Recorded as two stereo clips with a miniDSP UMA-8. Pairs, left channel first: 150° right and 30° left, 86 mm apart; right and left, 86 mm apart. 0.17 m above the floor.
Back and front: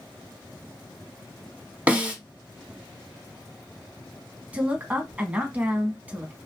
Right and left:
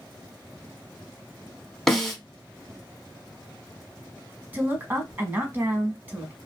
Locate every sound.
1.9 s a snare drum: 10° right, 0.9 m
4.5 s a woman speaking: 70° left, 1.1 m